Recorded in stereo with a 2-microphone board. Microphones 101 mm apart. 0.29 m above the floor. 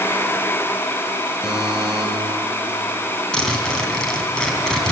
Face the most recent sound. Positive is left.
turn(degrees=10)  # may be behind; listen again after turning